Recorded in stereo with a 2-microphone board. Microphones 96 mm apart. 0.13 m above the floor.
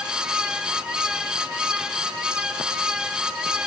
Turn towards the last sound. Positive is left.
No sound to turn to.